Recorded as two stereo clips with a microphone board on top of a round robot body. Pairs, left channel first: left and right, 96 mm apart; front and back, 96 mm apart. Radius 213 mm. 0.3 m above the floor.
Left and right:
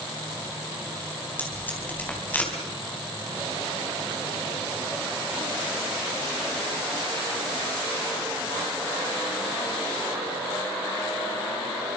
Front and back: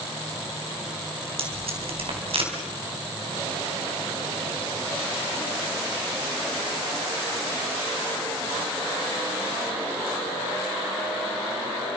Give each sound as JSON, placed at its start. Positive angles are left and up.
{"t": 1.4, "sound": "tape being pulled", "azimuth_deg": 165, "distance_m": 4.5}